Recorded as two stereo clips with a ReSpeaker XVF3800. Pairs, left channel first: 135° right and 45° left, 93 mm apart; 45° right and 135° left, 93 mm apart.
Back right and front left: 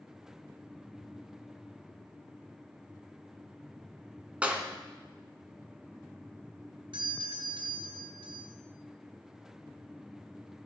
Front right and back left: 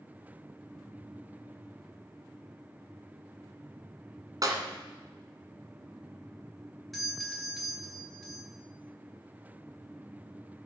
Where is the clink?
I don't hear a clink.